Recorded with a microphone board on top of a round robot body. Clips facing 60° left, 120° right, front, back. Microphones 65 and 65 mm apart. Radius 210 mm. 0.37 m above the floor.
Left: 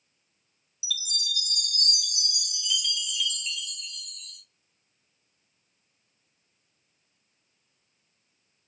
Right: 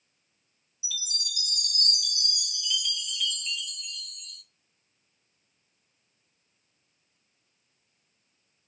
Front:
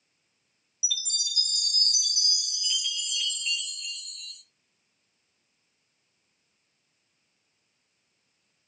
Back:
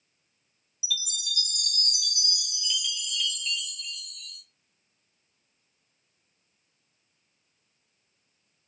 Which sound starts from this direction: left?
A chime, at 0.8 s.